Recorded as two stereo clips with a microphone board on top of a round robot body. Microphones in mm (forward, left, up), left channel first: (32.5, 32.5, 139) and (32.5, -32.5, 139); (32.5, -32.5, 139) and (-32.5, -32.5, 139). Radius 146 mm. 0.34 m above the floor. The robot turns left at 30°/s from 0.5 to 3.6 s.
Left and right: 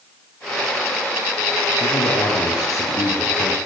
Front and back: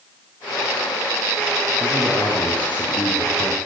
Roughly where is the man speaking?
Left.